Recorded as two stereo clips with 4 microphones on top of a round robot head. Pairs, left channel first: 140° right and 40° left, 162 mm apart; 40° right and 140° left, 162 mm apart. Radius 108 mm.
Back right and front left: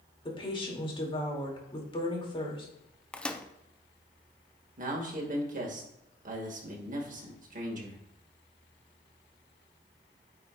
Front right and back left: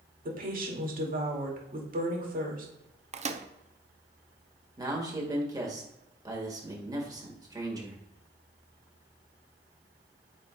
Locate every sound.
0.2 s a woman speaking: 165° left, 2 m
3.1 s a microwave: 140° left, 0.7 m
4.8 s a man speaking: 75° left, 1.9 m